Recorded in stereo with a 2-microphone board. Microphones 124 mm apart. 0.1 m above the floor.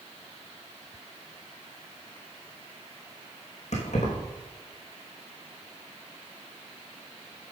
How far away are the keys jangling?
About 4 m.